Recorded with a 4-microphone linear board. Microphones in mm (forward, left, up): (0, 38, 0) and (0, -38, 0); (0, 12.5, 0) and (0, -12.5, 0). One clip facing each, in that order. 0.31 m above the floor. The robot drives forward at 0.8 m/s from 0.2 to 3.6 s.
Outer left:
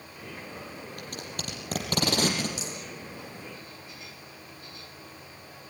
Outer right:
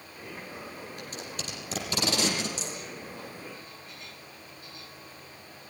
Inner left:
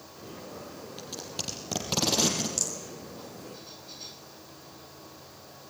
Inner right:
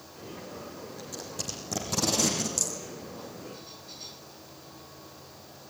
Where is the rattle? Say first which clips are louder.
Even, inner right 1 dB; 15° left (ahead or behind), 5 m.